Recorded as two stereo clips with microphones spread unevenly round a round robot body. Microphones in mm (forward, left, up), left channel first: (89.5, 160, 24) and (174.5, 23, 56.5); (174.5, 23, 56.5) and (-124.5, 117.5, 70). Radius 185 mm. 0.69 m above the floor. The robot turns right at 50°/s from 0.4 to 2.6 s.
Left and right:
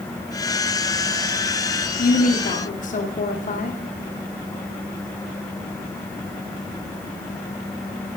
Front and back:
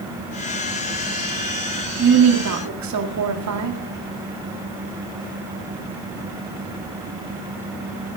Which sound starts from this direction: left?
A woman speaking, at 2.0 s.